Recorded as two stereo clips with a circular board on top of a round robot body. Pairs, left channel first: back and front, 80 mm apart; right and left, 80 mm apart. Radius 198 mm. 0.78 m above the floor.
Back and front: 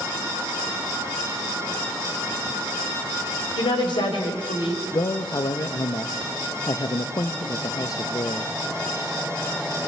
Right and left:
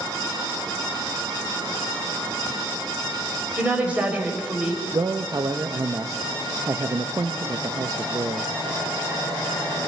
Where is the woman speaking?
165° left, 4.5 m.